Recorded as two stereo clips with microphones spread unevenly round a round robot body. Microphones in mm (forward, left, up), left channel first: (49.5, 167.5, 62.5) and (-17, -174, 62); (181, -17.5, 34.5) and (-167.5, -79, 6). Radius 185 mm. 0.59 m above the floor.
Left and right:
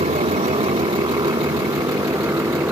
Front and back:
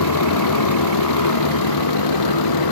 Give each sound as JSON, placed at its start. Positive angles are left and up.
{"t": 0.0, "sound": "a motorcycle", "azimuth_deg": -30}